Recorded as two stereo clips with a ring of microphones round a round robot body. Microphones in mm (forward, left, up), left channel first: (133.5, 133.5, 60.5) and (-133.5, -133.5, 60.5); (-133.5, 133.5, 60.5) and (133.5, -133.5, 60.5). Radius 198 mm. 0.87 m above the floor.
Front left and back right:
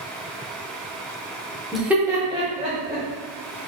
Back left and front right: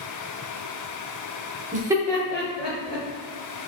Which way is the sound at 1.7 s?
45° right.